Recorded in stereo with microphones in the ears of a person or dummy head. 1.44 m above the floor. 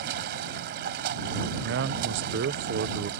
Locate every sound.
0.0 s running water: 55° right (ahead or behind)
1.6 s a man speaking: 55° right (ahead or behind)